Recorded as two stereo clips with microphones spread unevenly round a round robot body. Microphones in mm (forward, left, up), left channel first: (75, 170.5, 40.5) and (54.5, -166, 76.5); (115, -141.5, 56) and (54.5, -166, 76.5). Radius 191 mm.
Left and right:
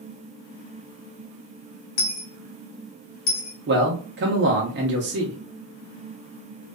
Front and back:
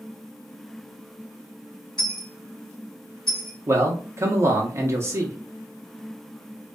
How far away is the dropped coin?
About 1.0 m.